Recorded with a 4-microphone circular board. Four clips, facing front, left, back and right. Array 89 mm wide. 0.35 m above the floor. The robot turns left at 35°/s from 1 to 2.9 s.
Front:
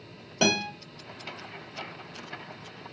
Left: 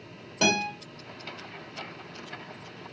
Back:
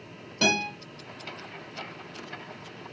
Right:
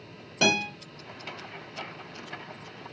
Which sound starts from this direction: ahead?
A guitar, at 0.4 s.